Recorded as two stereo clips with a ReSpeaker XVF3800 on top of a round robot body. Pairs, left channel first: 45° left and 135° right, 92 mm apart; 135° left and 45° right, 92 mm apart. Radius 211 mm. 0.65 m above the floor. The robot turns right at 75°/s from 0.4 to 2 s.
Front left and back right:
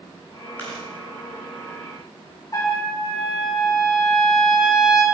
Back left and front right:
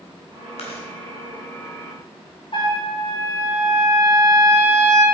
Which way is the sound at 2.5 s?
100° left.